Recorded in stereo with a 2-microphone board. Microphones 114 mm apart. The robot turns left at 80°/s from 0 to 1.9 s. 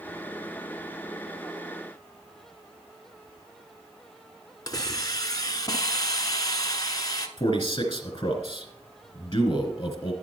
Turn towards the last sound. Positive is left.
turn(degrees=35)  # may be behind; listen again after turning